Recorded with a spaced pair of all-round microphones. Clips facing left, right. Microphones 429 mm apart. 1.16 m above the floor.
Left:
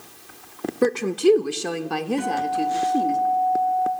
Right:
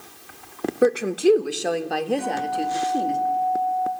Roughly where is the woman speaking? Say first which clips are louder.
Even; centre.